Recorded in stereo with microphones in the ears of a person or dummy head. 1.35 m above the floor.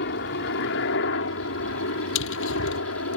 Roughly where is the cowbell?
I don't hear a cowbell.